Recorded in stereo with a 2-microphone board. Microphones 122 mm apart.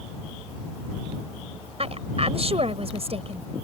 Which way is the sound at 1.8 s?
55° right (ahead or behind).